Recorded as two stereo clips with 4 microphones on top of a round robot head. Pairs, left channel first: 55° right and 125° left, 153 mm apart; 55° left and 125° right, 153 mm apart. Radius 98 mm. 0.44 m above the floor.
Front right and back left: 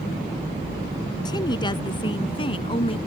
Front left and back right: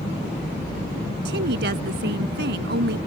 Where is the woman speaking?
120° right; by 3.0 s 115° right.